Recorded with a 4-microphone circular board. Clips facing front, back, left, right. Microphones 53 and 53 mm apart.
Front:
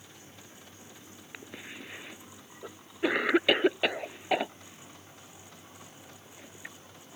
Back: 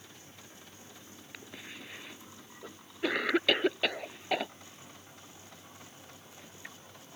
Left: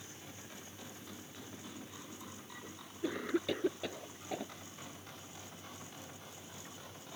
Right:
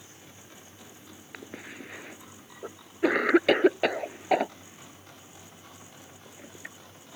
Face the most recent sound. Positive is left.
turn(degrees=-75)